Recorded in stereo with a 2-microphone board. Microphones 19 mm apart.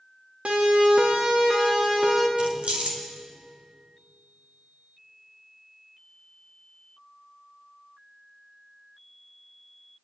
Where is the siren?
75° right (ahead or behind), 3 m; by 2.3 s 35° right (ahead or behind), 4 m.